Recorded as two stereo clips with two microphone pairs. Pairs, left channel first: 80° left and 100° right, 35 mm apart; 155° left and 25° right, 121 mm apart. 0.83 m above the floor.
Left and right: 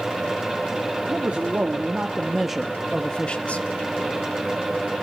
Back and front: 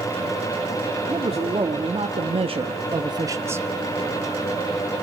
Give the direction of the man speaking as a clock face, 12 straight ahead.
2 o'clock.